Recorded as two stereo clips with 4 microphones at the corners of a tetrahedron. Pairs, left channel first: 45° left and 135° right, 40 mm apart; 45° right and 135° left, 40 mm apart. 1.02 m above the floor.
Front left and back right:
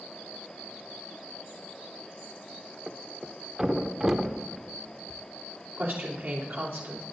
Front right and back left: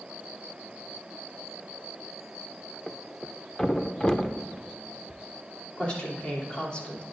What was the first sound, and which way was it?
A thud, 90° right.